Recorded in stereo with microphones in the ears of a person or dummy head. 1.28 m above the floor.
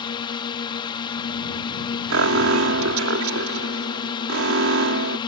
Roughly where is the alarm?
Right.